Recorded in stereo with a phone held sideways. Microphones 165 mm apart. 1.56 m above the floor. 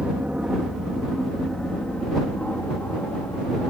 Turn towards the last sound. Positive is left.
turn(degrees=15)  # may be behind; listen again after turning